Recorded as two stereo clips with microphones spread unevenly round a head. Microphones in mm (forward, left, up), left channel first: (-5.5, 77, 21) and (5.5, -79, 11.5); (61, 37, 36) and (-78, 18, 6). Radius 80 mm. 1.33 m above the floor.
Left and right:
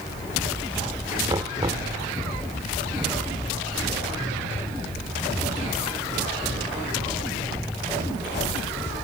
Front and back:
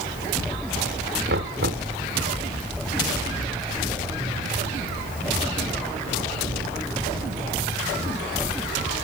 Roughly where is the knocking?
Behind right.